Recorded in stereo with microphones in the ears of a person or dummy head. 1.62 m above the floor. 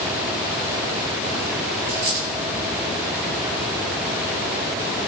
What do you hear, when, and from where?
1.9 s a dropped coin: 60° right (ahead or behind), 9.5 m